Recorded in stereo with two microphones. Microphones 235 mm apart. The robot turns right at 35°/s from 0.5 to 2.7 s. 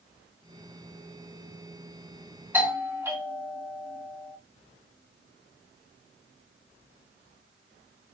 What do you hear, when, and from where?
2.5 s a doorbell: 10° right (ahead or behind), 1.6 m